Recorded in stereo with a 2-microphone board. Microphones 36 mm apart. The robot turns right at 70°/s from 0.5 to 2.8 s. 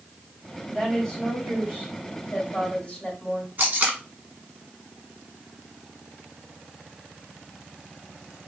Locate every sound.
0.7 s a woman speaking: 5° right, 2 m; by 3.5 s 140° left, 2 m
3.6 s tape being pulled: 45° right (ahead or behind), 1.2 m